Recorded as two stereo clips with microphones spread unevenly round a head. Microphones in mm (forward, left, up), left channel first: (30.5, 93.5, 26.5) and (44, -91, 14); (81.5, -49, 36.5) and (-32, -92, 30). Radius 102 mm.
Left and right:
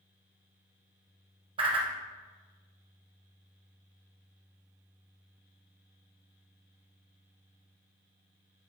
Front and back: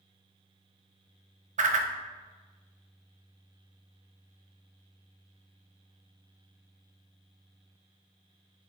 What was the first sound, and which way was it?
A whoosh, 150° right.